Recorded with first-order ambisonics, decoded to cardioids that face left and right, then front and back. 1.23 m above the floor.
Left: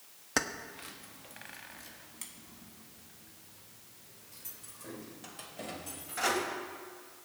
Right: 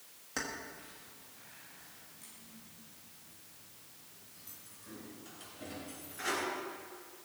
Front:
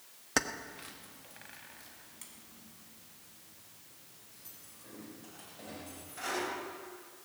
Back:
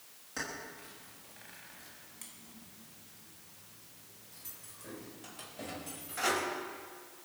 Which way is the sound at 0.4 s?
35° left.